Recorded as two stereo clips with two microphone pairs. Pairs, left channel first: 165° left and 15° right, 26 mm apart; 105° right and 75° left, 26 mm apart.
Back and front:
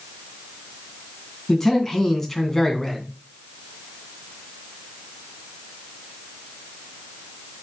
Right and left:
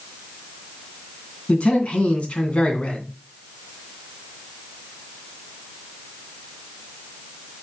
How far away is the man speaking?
About 2.5 m.